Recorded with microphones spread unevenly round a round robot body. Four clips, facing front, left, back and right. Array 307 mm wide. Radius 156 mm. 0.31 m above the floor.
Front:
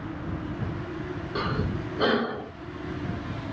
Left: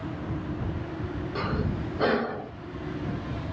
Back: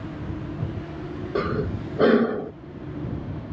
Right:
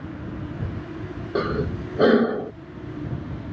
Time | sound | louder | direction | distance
1.4 | breathing | right 7 dB, back 4 dB | 130° right | ?